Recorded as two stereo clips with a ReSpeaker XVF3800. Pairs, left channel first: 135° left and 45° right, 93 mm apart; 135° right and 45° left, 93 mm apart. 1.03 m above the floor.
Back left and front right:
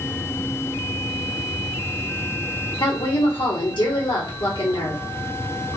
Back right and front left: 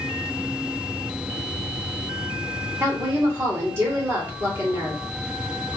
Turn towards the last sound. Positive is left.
turn(degrees=110)